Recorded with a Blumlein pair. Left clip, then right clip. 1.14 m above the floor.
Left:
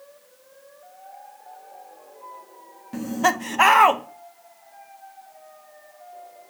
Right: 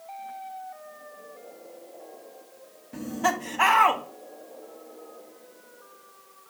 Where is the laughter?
20° left, 0.8 m.